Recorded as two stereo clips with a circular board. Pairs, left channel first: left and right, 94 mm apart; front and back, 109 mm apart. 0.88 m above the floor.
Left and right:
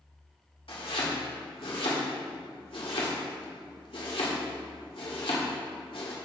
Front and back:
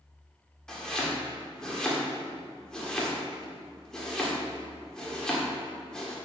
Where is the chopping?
80° left, 1.9 m.